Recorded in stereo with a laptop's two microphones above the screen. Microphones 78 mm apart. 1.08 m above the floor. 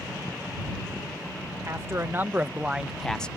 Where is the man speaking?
35° right (ahead or behind); by 3.3 s 15° left (ahead or behind).